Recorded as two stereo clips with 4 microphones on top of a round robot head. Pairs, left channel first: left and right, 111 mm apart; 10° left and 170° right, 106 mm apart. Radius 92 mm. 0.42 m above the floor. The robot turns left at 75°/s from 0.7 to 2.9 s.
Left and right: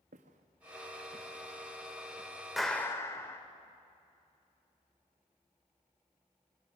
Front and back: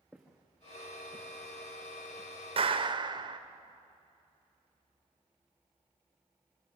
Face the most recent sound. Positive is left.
turn(degrees=155)